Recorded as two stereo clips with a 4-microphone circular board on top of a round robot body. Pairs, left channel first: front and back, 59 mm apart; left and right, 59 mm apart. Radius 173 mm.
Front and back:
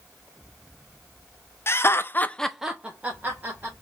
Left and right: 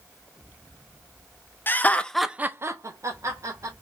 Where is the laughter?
40° left, 1.2 m; by 3.7 s 120° right, 2 m.